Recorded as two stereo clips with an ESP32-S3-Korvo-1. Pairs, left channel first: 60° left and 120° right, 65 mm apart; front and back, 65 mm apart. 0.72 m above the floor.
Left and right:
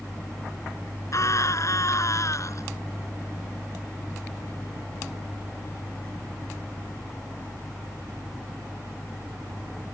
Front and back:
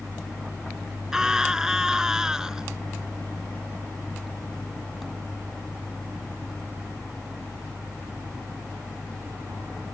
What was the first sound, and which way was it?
A scream, 100° left.